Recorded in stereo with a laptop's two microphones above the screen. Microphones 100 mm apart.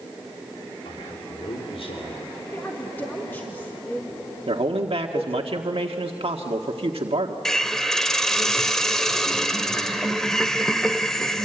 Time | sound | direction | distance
0.8 | a man speaking | 75° left (ahead or behind) | 3 m
2.5 | a woman speaking | 20° left (ahead or behind) | 1.6 m
4.5 | a man speaking | 70° right (ahead or behind) | 1.6 m
7.5 | a hiss | 5° left (ahead or behind) | 1.1 m